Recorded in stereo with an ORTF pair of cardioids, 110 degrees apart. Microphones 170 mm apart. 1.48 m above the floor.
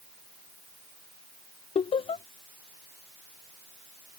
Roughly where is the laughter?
Ahead left.